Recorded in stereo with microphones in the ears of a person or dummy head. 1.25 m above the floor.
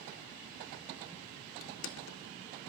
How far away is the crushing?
About 1.2 m.